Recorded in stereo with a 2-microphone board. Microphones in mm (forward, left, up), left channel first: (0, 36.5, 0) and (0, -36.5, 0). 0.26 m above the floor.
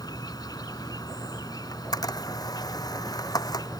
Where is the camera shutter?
60° left (ahead or behind).